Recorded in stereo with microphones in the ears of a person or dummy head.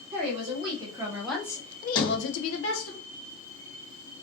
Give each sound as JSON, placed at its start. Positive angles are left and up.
{"t": 0.1, "sound": "a woman speaking", "side_deg": -45, "distance_m": 1.2}
{"t": 1.9, "sound": "a sliding door", "side_deg": 25, "distance_m": 0.7}